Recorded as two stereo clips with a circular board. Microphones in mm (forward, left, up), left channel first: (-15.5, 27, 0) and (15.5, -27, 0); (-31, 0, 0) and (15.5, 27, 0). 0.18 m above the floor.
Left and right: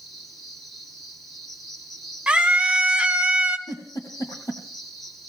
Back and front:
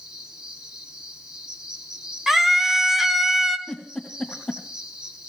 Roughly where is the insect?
Ahead left.